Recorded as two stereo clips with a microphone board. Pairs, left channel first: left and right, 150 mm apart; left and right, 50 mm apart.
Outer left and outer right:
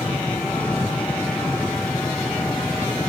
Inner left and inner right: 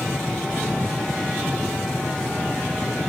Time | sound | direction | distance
0.0 | an engine running | 10° left (ahead or behind) | ?